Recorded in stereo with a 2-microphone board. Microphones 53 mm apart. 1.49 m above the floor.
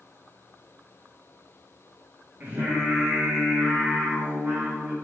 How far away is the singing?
About 1.7 m.